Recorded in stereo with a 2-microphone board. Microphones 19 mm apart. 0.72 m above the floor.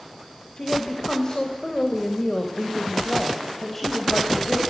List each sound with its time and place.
0.6 s a woman speaking: 35° left (ahead or behind), 3.5 m; by 4.6 s 5° left (ahead or behind), 4.5 m